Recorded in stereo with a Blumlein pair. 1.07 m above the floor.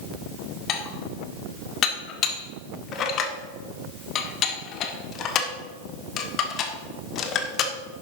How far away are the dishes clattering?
About 1.5 m.